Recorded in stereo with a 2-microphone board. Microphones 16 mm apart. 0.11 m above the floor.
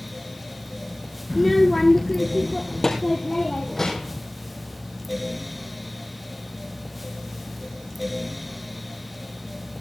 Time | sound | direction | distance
1.3 | a child speaking | centre (ahead or behind) | 0.7 m